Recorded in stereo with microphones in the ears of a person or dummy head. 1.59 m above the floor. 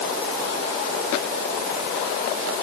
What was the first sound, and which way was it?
Only background noise.